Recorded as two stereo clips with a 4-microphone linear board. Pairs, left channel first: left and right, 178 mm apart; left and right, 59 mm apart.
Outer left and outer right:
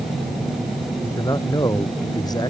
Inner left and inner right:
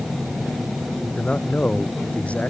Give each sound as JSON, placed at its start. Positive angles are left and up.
{"t": 1.2, "sound": "a man speaking", "side_deg": 20}